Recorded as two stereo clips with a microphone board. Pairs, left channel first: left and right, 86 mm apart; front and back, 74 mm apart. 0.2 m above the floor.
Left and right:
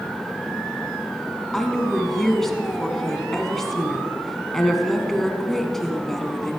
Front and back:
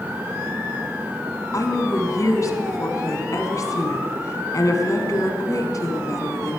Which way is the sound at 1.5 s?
5° left.